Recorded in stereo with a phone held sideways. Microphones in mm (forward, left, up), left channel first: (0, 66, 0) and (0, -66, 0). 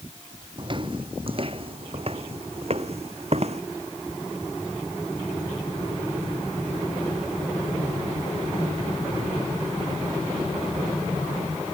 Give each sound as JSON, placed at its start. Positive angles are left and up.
{"t": 0.6, "sound": "footsteps", "side_deg": -40}